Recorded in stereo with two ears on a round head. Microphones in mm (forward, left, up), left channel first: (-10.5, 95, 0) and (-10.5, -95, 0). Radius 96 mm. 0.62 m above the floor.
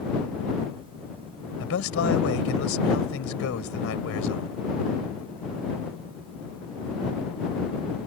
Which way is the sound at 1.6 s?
70° left (ahead or behind).